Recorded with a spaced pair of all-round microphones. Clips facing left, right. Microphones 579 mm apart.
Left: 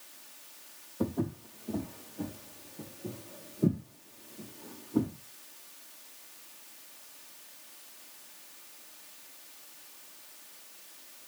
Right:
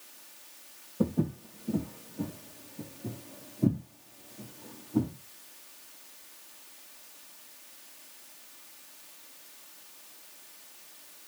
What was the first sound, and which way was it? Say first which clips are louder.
Footsteps: right 3 dB; 50° right (ahead or behind).